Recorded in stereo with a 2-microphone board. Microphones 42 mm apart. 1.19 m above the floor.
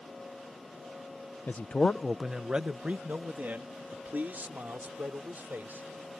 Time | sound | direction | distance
1.5 | a man speaking | 55° left (ahead or behind) | ?